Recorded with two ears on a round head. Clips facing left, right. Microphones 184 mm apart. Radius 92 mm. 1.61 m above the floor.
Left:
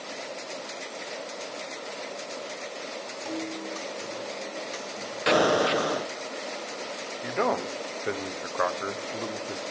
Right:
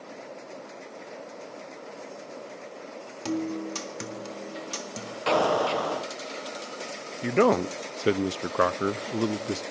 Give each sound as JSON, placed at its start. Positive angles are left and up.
{"t": 3.2, "sound": "a guitar", "side_deg": -60, "distance_m": 1.7}
{"t": 5.3, "sound": "an explosion", "side_deg": 20, "distance_m": 0.9}
{"t": 7.2, "sound": "a man speaking", "side_deg": -45, "distance_m": 0.5}